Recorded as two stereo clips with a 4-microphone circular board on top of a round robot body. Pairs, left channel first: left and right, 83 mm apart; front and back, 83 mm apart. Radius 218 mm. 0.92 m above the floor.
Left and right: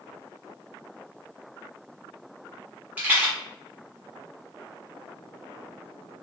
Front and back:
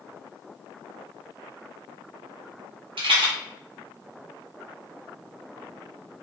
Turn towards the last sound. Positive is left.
turn(degrees=-165)